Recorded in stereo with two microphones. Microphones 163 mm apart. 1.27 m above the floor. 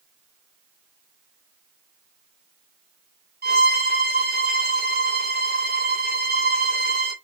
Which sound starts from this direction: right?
A violin, at 3.4 s.